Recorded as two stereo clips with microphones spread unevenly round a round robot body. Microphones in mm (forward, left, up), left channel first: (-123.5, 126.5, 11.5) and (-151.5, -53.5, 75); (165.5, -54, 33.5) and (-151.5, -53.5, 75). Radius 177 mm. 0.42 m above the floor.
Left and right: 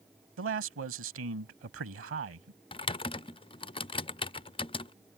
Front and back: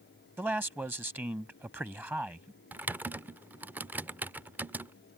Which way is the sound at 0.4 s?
95° right.